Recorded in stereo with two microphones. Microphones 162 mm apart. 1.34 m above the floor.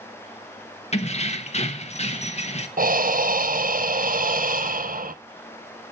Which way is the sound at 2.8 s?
60° right (ahead or behind).